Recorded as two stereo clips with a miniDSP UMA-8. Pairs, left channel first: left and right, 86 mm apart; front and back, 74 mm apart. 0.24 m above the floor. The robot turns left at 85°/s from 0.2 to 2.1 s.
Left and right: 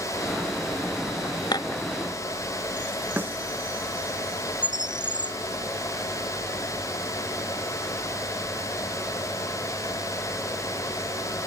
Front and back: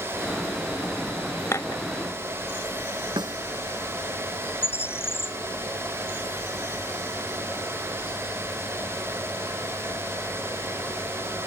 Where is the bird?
55° right.